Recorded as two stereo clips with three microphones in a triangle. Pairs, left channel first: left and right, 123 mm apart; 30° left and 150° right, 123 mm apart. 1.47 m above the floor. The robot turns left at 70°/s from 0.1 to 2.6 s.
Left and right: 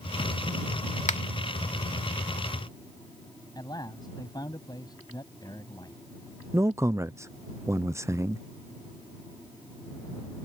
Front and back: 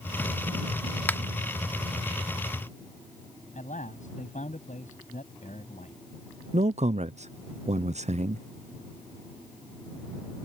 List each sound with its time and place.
1.1 s a finger snap: 105° left; by 1.2 s 95° left
3.5 s a man speaking: 35° left
6.5 s a man speaking: 155° right